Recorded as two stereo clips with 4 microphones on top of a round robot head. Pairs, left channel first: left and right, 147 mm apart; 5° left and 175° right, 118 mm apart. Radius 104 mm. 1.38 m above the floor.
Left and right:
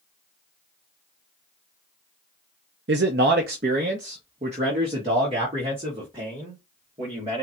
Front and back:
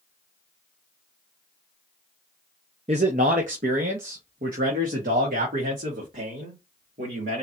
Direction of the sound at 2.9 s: 115° right.